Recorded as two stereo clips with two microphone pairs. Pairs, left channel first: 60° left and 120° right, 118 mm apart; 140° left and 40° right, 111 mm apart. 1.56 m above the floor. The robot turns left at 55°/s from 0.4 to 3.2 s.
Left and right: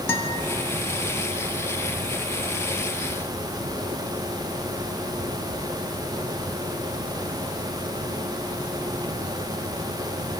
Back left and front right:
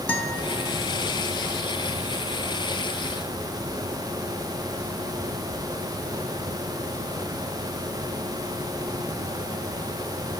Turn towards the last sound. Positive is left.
turn(degrees=-65)